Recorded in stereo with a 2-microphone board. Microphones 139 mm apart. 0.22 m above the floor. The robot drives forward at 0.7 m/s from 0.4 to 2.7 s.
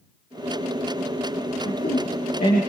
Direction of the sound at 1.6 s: 80° left.